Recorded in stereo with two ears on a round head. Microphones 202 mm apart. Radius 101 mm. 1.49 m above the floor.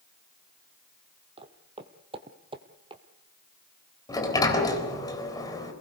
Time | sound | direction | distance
1.4 | footsteps | 25° right (ahead or behind) | 2 m
4.1 | a sliding door | 15° left (ahead or behind) | 3.5 m